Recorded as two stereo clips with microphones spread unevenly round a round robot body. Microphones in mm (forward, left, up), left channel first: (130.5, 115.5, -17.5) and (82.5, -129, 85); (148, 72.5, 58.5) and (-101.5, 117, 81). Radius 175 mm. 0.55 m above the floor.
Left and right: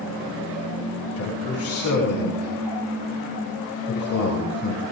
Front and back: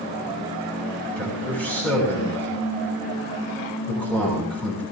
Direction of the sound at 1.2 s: 75° left.